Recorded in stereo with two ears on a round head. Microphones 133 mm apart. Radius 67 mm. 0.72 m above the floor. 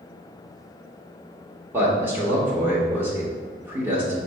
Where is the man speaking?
15° right (ahead or behind), 1.1 m.